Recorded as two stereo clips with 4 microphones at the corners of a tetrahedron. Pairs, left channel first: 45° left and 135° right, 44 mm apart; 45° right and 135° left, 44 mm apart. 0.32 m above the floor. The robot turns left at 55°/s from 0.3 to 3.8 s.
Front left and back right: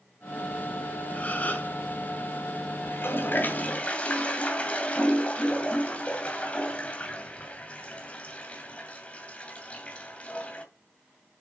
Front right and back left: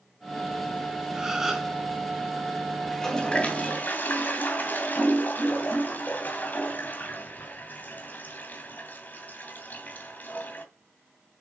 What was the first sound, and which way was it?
A gasp, 75° left.